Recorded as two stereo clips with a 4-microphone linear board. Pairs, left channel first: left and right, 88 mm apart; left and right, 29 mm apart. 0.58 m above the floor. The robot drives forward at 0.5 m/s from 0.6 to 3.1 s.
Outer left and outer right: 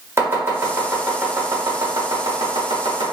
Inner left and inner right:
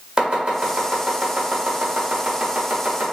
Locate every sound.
0.2 s chopping: 30° right (ahead or behind), 1.6 m; by 3.1 s 55° right (ahead or behind), 1.0 m